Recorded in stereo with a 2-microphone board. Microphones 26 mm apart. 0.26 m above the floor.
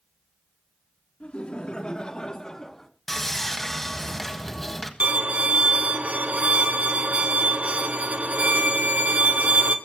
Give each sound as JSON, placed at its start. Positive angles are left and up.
{"t": 1.2, "sound": "laughter", "side_deg": 50, "distance_m": 3.0}
{"t": 3.1, "sound": "sawing", "side_deg": 5, "distance_m": 1.6}
{"t": 5.0, "sound": "a violin", "side_deg": -55, "distance_m": 1.4}